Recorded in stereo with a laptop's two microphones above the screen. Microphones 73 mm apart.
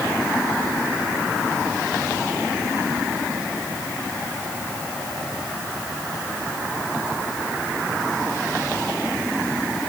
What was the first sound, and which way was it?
Only background noise.